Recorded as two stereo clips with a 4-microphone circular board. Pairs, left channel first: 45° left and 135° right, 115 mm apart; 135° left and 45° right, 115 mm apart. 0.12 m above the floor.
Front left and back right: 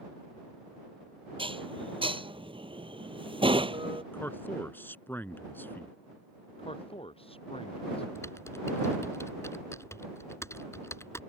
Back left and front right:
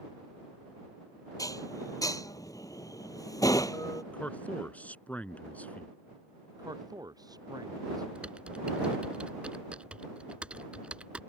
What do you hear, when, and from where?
1.4 s dishes clattering: 170° right
4.1 s a man speaking: 80° left
6.6 s a man speaking: 10° left
8.2 s typing on a keyboard: 20° left